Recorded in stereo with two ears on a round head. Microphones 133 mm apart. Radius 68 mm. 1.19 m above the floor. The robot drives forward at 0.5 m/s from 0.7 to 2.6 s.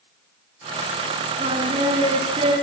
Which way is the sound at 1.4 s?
30° right (ahead or behind).